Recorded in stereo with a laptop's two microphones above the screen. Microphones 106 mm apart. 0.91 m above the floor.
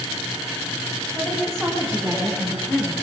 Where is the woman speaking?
5° left (ahead or behind), 7.5 m; by 2.9 s 15° left (ahead or behind), 7.5 m.